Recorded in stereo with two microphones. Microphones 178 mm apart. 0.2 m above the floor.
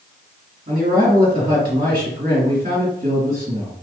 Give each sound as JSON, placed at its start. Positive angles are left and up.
{"t": 0.7, "sound": "a man speaking", "side_deg": -50, "distance_m": 1.7}